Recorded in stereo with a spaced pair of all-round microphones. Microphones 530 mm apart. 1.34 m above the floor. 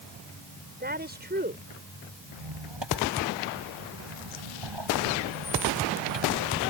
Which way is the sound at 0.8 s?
20° right (ahead or behind).